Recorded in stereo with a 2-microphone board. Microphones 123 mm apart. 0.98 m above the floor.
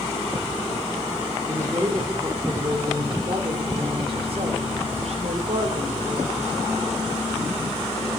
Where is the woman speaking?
25° right (ahead or behind), 3.5 m; by 7.0 s 70° right (ahead or behind), 3.5 m.